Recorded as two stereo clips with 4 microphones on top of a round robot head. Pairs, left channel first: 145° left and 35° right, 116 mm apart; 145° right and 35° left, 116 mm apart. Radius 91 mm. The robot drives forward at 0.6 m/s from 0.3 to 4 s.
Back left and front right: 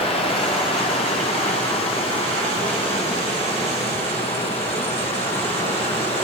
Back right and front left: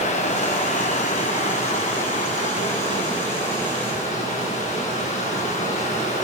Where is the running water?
175° right, 4 m.